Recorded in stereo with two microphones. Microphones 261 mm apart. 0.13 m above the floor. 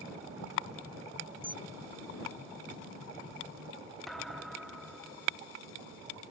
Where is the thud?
Centre (ahead or behind).